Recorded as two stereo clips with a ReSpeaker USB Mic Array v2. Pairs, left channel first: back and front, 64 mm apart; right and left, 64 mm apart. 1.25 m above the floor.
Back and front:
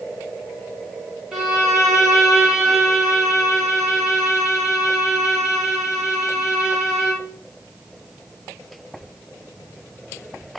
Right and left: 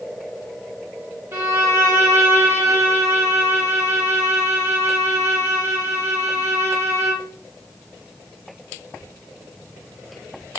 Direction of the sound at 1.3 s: 80° left.